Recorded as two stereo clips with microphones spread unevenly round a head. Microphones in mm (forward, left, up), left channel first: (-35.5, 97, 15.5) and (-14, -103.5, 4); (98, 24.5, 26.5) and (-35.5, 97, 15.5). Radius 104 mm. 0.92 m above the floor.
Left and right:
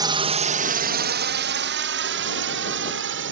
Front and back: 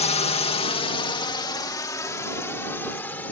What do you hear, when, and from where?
0.0 s a drone: 30° right; by 3.3 s 110° right